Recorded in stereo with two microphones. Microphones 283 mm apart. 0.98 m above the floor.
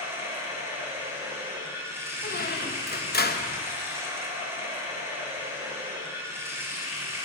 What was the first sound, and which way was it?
Running water, 10° right (ahead or behind).